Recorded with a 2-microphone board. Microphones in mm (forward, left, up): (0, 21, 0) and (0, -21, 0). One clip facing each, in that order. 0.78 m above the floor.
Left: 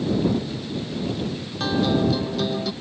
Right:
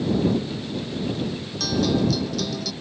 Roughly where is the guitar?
Left.